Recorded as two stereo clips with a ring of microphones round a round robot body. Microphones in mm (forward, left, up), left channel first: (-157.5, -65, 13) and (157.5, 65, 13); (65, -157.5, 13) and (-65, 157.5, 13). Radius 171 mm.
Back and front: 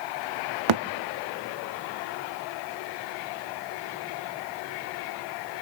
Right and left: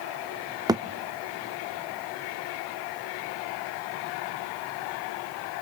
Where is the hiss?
I don't hear a hiss.